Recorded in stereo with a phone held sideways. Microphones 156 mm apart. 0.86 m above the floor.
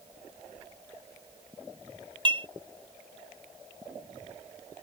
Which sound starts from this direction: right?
Dishes clattering, at 2.2 s.